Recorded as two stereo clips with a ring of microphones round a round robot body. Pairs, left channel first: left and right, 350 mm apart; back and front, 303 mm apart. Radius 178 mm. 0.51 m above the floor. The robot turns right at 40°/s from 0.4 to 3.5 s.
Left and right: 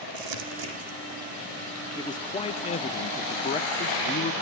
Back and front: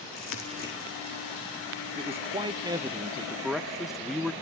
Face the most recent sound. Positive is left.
turn(degrees=90)